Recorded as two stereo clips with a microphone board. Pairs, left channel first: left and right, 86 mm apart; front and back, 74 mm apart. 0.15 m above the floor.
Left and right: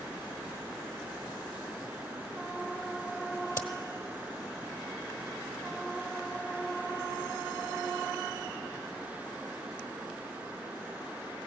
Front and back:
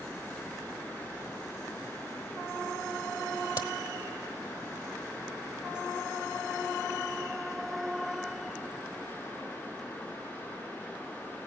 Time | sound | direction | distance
3.6 | a crack | 30° left | 1.1 m